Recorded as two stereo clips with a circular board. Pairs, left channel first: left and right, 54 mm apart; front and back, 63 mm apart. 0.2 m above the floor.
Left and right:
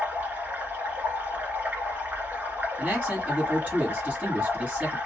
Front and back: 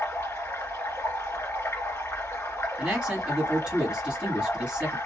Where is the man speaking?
120° right, 1.3 m.